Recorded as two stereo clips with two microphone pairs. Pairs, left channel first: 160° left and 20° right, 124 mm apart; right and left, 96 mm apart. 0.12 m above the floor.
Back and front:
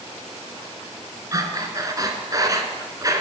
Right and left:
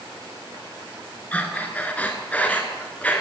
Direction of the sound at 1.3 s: 35° right.